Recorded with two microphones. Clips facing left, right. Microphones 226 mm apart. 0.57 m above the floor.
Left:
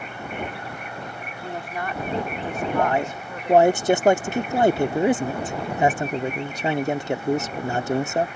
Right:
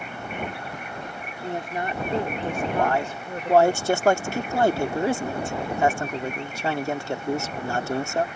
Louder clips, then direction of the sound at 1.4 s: Right 2 dB; 20° right (ahead or behind).